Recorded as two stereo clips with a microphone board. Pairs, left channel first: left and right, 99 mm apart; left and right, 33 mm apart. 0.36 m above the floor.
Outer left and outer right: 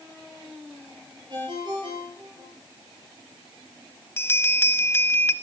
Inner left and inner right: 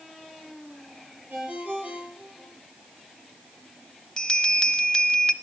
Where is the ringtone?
50° right (ahead or behind), 6.5 m.